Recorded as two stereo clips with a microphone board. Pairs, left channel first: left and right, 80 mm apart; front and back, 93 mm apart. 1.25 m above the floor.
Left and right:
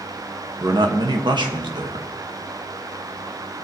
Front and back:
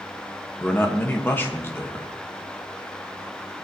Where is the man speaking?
70° right, 1.5 m.